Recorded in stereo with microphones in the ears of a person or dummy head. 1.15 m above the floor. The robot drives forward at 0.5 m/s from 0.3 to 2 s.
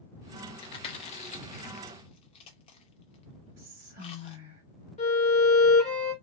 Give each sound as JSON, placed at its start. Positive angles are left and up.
{"t": 0.6, "sound": "chewing", "side_deg": 25, "distance_m": 0.6}
{"t": 3.6, "sound": "whispering", "side_deg": -45, "distance_m": 1.6}
{"t": 5.0, "sound": "a violin", "side_deg": 35, "distance_m": 1.2}